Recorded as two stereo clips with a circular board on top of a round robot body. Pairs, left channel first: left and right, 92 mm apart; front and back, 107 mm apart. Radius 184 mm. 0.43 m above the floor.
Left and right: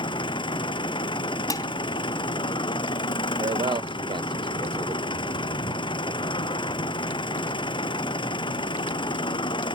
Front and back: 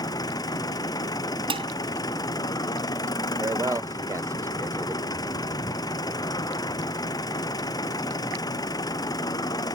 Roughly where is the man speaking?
Behind right.